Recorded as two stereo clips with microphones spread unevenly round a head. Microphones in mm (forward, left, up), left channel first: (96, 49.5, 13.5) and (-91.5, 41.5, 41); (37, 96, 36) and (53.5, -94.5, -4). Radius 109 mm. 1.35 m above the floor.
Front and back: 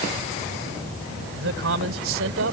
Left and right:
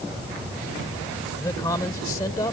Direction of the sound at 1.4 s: 170° left.